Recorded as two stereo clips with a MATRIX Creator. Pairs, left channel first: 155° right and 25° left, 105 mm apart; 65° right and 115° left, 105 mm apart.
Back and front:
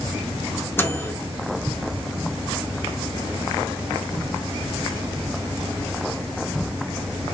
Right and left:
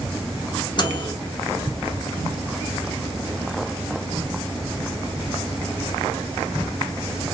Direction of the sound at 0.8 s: 95° right.